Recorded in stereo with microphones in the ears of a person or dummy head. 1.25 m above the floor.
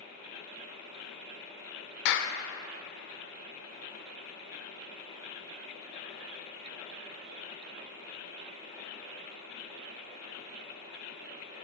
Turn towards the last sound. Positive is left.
turn(degrees=60)  # may be behind; listen again after turning